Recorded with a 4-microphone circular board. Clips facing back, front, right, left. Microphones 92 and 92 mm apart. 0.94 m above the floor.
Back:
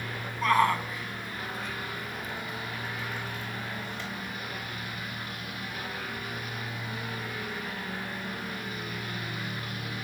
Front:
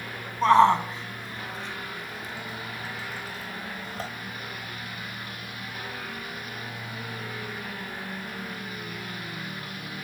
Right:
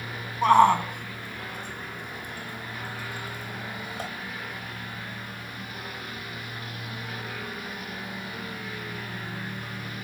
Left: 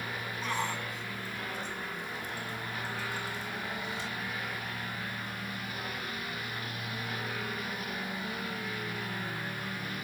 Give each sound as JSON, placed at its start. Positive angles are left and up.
{"t": 0.4, "sound": "a shout", "azimuth_deg": -60}